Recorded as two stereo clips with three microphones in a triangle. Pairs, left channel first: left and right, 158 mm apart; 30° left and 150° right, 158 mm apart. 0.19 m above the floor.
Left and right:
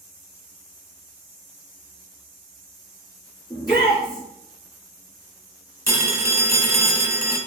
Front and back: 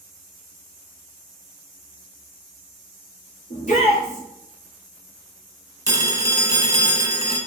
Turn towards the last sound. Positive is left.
turn(degrees=-130)